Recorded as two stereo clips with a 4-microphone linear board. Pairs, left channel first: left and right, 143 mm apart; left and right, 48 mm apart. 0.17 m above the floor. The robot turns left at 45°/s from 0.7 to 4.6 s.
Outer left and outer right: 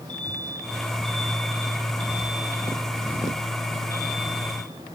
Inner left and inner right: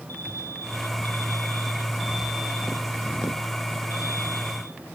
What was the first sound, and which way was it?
An alarm, 60° left.